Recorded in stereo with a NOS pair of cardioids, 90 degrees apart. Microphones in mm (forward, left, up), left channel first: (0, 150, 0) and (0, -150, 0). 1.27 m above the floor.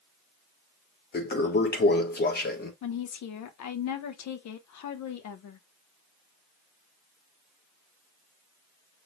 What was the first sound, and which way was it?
A toilet flushing, 30° left.